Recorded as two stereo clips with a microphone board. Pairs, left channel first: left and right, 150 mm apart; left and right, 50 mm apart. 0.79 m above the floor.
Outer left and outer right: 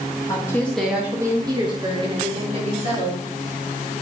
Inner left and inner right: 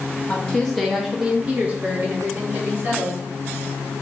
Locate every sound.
0.3 s a woman speaking: 20° left (ahead or behind), 0.6 m; by 3.2 s 40° right (ahead or behind), 1.5 m